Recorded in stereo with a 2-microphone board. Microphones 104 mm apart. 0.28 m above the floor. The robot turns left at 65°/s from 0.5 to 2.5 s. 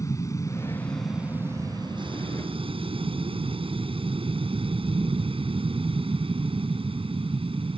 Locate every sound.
0.0 s an aircraft: 35° left; by 7.8 s 95° right